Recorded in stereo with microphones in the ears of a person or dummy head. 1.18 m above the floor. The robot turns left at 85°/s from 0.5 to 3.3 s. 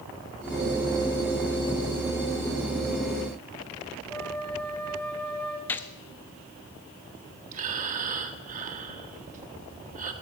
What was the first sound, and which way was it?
A flute, 15° left (ahead or behind).